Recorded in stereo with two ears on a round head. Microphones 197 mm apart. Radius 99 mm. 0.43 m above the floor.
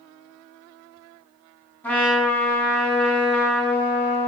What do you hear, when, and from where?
1.8 s a trumpet: 10° left (ahead or behind), 1.5 m